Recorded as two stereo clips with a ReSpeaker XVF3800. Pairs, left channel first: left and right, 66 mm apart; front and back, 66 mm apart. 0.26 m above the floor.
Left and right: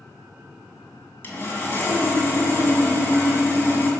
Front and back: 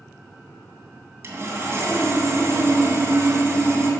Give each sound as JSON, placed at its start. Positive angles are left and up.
{"t": 1.2, "sound": "sawing", "azimuth_deg": 140, "distance_m": 2.5}